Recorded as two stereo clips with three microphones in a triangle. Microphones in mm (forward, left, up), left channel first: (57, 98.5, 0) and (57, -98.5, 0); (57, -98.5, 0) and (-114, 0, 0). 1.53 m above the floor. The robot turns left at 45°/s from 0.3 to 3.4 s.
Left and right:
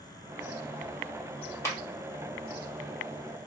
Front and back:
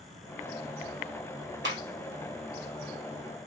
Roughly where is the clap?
Behind.